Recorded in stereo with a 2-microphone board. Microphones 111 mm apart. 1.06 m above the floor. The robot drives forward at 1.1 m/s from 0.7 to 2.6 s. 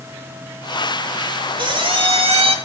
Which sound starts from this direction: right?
A squeak, at 1.6 s.